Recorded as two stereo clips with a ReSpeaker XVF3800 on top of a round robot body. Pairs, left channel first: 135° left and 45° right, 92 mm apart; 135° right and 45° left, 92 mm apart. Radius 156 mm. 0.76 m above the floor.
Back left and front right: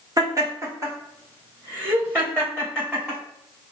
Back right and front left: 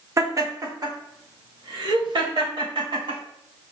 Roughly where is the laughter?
Ahead.